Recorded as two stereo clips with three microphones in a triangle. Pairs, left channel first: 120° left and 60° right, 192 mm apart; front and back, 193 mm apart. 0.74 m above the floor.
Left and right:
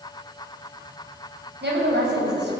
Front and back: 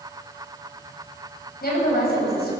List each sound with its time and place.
1.6 s a woman speaking: 35° right, 5.5 m